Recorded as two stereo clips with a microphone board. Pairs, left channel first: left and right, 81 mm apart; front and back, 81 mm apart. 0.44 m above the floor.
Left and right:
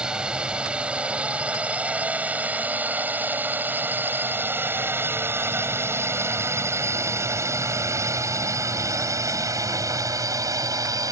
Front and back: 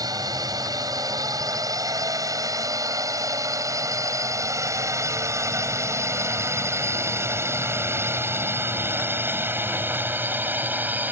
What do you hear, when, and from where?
0.0 s a drone: 165° right; by 11.1 s 120° right